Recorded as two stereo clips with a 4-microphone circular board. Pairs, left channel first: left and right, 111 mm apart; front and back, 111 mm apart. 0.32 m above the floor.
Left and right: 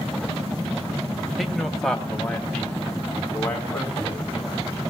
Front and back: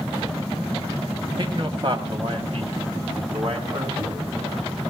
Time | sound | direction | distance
1.4 | a man speaking | straight behind | 1.8 m